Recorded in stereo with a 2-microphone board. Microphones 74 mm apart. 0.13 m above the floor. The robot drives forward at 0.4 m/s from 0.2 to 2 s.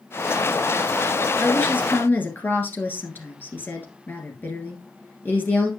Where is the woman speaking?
30° left (ahead or behind), 1.9 m; by 5.7 s 25° left (ahead or behind), 2 m.